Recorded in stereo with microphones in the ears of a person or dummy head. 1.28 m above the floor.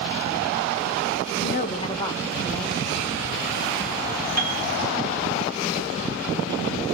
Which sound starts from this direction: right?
A piano, at 4.4 s.